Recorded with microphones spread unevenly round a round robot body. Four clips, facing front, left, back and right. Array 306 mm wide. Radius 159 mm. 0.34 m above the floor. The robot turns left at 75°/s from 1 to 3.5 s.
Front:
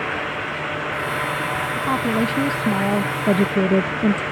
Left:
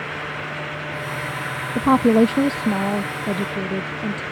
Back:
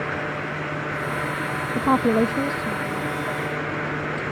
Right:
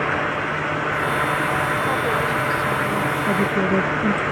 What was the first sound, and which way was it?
A woman speaking, 115° left.